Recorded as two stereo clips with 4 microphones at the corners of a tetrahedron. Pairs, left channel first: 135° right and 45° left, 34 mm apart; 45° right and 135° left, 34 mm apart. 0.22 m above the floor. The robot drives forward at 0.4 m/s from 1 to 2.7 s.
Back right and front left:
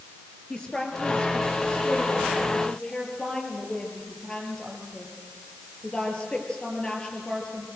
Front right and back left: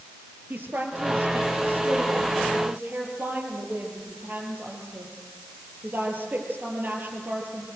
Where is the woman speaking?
160° left, 5 m; by 7.7 s 165° left, 5.5 m.